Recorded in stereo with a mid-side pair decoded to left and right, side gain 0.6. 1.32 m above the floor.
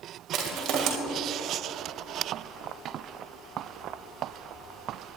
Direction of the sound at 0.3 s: 65° right.